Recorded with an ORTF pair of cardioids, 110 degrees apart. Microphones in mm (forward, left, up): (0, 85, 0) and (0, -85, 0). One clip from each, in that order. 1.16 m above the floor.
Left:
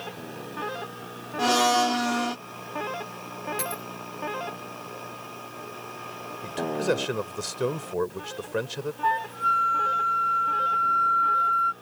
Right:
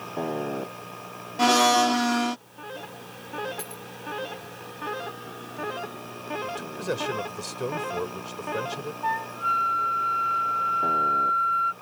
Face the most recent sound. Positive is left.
turn(degrees=30)